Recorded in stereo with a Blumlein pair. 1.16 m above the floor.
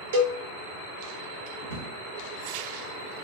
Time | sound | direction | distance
0.1 | a cowbell | 60° right | 0.7 m
1.6 | a drawer | 65° right | 1.0 m